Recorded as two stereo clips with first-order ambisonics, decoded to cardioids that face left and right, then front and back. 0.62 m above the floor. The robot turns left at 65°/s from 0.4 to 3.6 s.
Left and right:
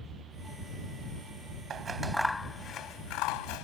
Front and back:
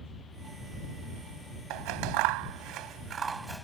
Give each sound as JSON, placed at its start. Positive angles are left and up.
{"t": 1.7, "sound": "scissors", "azimuth_deg": -150}